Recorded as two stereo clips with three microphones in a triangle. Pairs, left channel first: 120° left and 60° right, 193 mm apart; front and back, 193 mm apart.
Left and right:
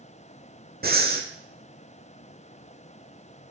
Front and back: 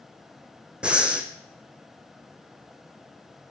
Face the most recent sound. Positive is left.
turn(degrees=-95)